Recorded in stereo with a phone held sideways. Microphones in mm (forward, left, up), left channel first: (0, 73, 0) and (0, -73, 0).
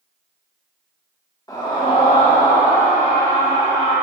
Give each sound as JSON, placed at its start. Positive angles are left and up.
{"t": 1.5, "sound": "a scream", "side_deg": 25, "distance_m": 1.5}